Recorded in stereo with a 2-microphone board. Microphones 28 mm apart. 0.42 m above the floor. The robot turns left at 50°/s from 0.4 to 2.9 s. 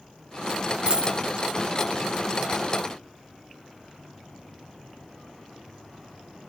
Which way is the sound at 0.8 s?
45° right (ahead or behind).